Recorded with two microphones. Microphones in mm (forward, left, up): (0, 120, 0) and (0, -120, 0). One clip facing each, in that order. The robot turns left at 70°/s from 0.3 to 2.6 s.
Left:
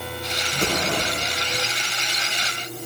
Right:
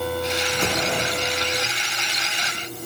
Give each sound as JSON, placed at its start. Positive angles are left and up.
{"t": 0.5, "sound": "an explosion", "azimuth_deg": 145, "distance_m": 8.0}